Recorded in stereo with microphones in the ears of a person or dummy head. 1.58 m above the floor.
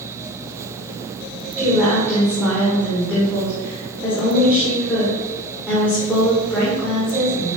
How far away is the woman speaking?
About 4.5 m.